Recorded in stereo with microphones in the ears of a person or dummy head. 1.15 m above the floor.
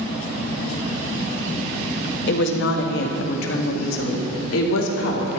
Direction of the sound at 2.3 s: 60° left (ahead or behind).